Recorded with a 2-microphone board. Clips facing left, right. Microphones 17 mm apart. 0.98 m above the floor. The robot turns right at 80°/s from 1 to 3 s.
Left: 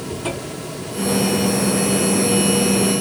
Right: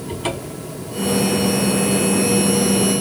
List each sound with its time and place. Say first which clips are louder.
0.1 s a cupboard door: right 2 dB; 75° right (ahead or behind), 1.2 m